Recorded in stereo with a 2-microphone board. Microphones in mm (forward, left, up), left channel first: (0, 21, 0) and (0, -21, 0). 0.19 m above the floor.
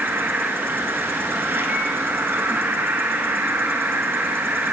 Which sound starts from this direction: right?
An insect, at 0.0 s.